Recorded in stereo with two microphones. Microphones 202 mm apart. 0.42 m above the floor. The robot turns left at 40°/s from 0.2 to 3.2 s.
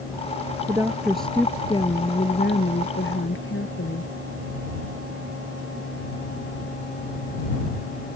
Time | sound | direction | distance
0.7 | a woman speaking | 160° right | ?